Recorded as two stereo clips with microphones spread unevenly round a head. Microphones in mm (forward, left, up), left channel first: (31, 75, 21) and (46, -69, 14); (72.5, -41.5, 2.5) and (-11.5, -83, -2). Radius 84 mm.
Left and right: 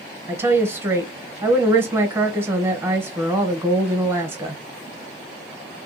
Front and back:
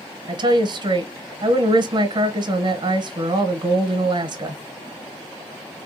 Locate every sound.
0.3 s a woman speaking: 155° right, 0.9 m